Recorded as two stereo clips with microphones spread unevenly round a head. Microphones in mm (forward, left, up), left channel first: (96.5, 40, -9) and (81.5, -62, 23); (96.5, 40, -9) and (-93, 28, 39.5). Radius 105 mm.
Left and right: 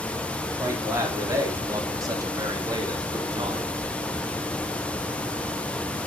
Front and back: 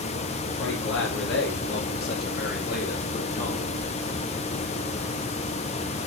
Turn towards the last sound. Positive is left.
turn(degrees=-55)